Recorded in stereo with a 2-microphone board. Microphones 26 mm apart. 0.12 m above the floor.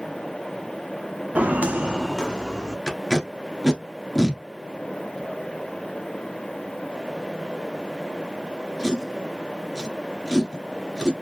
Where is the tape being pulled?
20° left (ahead or behind), 1.3 m.